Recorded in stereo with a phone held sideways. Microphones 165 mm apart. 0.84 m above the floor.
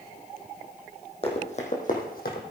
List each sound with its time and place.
1.2 s running footsteps: 35° left (ahead or behind), 2.5 m; by 2.4 s 70° left (ahead or behind), 2.5 m